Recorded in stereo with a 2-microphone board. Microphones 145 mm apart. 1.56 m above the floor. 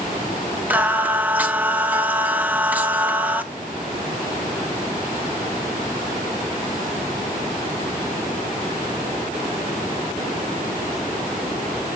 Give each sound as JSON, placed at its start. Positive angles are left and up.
{"t": 0.7, "sound": "singing", "side_deg": -10, "distance_m": 0.8}